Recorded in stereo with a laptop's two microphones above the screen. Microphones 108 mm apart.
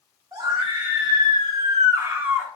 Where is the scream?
40° right (ahead or behind), 1.4 m; by 2.5 s 10° right (ahead or behind), 0.7 m.